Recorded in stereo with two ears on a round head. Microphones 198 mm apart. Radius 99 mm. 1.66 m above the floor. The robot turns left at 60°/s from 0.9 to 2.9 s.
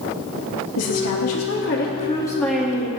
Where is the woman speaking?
95° left, 2.5 m; by 2.9 s 25° right, 2.5 m.